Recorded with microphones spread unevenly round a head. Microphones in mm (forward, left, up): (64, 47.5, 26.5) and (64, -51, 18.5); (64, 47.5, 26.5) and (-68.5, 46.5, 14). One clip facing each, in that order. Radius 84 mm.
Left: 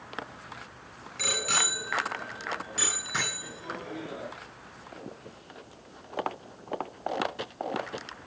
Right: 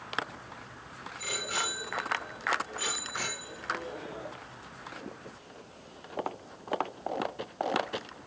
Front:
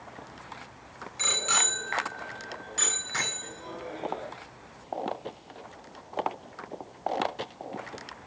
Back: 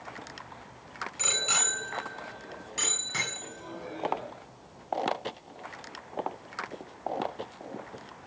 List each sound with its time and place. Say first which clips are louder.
1.2 s a bicycle bell: left 4 dB, front 3 dB; 100° left, 7.5 m; by 4.3 s 105° left, 12 m